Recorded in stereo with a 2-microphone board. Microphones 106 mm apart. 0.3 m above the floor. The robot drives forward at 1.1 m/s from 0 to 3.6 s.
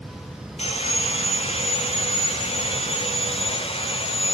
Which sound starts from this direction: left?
Sawing, at 0.6 s.